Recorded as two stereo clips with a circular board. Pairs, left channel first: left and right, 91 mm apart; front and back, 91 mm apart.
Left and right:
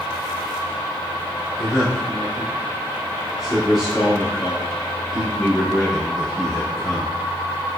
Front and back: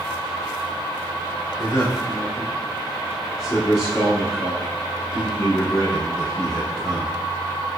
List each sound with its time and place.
1.6 s a man speaking: 5° right, 1.5 m